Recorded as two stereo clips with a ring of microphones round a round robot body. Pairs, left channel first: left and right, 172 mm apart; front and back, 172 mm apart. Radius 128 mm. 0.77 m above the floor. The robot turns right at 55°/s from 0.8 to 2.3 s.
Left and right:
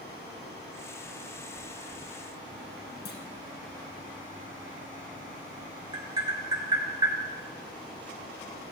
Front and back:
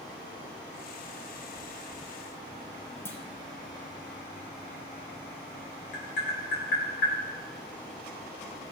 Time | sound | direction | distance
3.0 | a clunk | 75° left | 2 m
5.9 | tapping | 25° right | 4.5 m